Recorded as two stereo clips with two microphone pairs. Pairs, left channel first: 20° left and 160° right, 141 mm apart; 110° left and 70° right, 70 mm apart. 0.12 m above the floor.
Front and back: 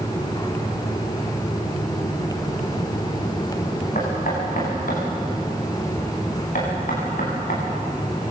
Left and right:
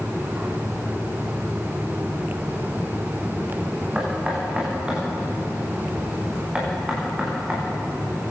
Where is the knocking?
5° left, 8.5 m.